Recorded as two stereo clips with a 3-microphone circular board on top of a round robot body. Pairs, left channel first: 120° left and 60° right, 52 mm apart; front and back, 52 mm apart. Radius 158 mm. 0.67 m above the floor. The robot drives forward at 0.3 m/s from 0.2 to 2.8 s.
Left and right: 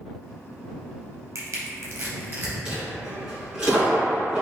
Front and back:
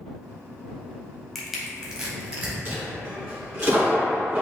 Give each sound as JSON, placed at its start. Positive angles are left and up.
{"t": 1.4, "sound": "crushing", "azimuth_deg": -90, "distance_m": 0.7}
{"t": 2.6, "sound": "a dropped coin", "azimuth_deg": -135, "distance_m": 1.4}